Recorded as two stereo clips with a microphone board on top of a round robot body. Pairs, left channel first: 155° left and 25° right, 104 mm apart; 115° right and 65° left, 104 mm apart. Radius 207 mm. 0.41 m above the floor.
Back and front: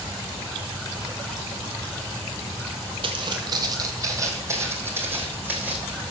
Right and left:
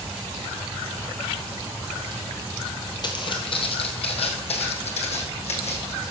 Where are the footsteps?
65° right, 1.1 m; by 5.9 s 100° right, 2.5 m.